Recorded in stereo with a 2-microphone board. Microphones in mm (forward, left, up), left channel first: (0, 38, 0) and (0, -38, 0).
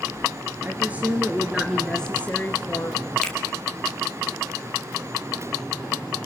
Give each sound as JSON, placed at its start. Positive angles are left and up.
{"t": 0.6, "sound": "a woman speaking", "side_deg": -25, "distance_m": 1.9}
{"t": 3.2, "sound": "a finger snap", "side_deg": 10, "distance_m": 2.5}